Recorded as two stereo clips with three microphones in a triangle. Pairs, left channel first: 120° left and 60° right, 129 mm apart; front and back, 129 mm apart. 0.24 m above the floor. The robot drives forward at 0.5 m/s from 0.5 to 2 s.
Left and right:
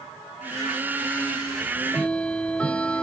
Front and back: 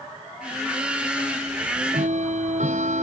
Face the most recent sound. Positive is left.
turn(degrees=-160)